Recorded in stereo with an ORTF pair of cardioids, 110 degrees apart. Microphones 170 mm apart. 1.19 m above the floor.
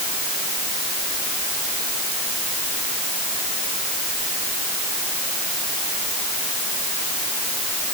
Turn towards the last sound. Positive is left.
No sound to turn to.